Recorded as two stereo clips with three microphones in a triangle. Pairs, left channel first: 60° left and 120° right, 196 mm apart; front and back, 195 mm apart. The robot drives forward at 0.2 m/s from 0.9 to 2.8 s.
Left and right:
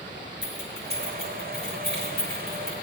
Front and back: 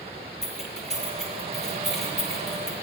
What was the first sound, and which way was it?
Keys jangling, 90° left.